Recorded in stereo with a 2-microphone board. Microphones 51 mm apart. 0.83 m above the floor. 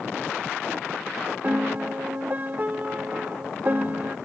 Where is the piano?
35° right (ahead or behind), 0.6 m.